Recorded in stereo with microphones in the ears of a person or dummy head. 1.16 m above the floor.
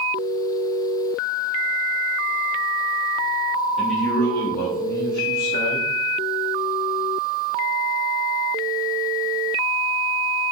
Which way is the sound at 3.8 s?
Centre (ahead or behind).